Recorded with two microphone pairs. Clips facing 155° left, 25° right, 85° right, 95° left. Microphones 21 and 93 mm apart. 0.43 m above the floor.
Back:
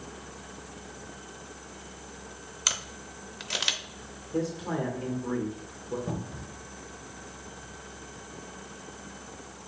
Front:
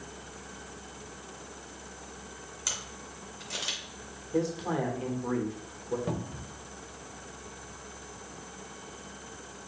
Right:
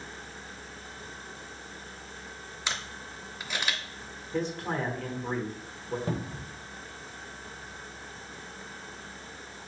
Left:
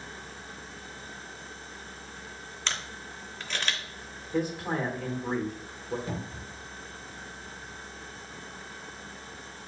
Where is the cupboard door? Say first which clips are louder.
Front 1 dB, right 3 dB; 50° right, 0.7 m.